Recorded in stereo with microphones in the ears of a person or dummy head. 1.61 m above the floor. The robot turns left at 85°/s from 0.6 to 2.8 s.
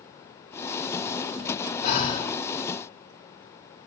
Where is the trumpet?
No trumpet in this recording.